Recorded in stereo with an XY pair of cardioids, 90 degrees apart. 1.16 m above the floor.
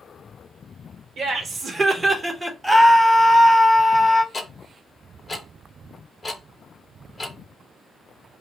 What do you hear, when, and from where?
1.2 s laughter: 60° right, 1.0 m; by 2.5 s 5° right, 0.7 m
2.6 s a scream: 5° right, 1.0 m
4.3 s ticking: 25° left, 0.8 m